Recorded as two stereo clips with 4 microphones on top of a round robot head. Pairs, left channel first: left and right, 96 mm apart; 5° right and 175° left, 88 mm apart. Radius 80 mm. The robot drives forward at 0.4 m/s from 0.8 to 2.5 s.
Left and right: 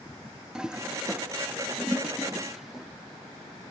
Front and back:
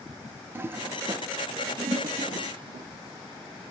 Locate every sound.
0.6 s a toilet flushing: 165° right, 0.5 m; by 2.9 s 175° right, 1.0 m